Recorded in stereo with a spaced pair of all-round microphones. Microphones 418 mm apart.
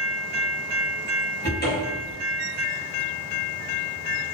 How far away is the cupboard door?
About 1.0 m.